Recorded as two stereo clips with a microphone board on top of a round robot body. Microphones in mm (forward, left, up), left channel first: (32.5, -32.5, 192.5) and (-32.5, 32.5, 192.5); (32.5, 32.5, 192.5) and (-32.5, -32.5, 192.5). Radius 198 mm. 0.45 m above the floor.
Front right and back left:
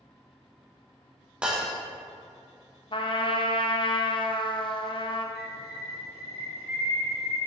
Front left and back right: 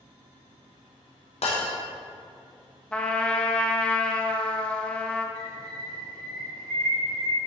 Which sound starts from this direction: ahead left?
Breaking glass, at 1.4 s.